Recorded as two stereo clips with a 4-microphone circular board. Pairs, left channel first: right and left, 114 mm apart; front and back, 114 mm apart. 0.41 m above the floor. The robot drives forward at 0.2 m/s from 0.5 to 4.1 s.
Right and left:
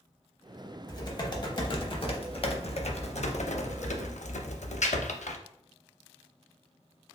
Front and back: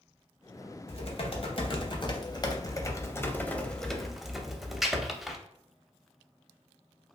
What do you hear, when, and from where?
0.9 s typing on a keyboard: 35° right, 0.8 m; by 5.4 s 90° right, 0.5 m